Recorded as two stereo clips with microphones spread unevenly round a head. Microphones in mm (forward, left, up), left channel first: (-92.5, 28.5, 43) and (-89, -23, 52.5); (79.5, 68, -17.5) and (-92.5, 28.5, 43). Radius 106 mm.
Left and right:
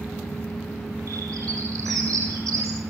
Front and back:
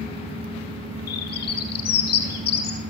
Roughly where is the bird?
Ahead right.